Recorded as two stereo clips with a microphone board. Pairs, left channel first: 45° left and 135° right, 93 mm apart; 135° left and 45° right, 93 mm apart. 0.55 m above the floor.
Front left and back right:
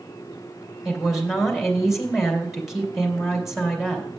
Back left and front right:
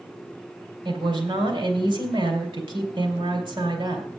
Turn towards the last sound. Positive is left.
turn(degrees=-50)